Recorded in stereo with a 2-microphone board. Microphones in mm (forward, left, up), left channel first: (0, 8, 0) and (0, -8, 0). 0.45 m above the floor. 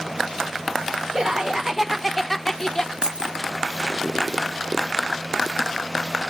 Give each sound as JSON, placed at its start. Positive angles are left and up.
{"t": 1.1, "sound": "laughter", "side_deg": -35, "distance_m": 1.2}
{"t": 3.0, "sound": "keys jangling", "side_deg": -45, "distance_m": 1.0}